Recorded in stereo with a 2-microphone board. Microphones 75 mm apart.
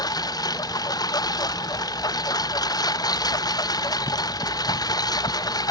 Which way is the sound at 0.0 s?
60° left (ahead or behind).